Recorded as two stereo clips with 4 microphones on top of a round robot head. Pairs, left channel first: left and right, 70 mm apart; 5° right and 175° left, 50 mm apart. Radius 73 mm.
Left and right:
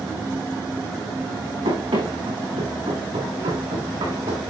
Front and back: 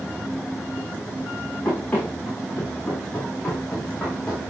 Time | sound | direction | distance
1.6 | running footsteps | 80° right | 7.5 m